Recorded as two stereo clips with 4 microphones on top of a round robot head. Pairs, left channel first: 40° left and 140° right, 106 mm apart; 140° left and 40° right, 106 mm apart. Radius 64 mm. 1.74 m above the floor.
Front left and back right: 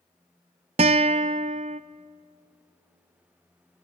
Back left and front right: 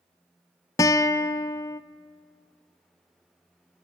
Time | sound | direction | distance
0.8 | a guitar | 165° right | 0.6 m